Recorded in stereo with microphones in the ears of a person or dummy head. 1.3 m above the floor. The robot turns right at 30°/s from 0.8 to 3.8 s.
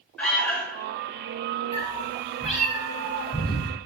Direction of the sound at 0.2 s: 5° left (ahead or behind).